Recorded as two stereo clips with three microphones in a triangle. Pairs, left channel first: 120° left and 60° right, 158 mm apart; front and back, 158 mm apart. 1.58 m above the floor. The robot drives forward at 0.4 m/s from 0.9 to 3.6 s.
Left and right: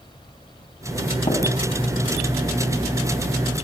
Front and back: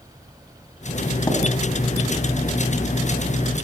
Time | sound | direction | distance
1.3 | tapping | 65° left | 5.5 m